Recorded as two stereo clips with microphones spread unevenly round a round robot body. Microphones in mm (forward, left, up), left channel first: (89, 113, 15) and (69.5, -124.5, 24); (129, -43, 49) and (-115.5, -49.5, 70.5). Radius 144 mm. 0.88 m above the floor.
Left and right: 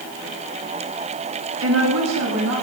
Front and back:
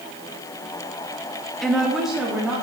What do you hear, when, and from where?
1.6 s a woman speaking: 85° right, 1.2 m; by 2.6 s 90° right, 2.5 m